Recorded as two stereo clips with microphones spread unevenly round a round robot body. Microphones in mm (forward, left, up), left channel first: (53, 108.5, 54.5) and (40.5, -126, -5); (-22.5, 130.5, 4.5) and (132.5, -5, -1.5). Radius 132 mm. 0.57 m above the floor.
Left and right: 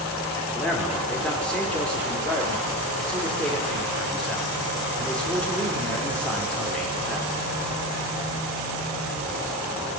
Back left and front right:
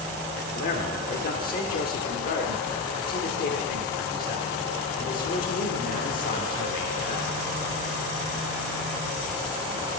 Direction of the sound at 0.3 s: 175° right.